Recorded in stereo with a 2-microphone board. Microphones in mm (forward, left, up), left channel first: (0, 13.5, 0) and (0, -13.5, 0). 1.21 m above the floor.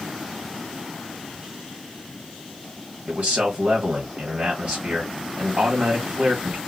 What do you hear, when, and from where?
3.1 s a man speaking: 60° right (ahead or behind), 1.7 m